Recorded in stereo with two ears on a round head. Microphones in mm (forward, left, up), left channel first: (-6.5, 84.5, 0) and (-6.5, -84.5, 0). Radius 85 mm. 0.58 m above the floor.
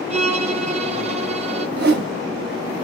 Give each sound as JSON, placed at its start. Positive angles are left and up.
{"t": 0.1, "sound": "a violin", "side_deg": -35, "distance_m": 0.6}
{"t": 1.8, "sound": "a whoosh", "side_deg": -55, "distance_m": 0.9}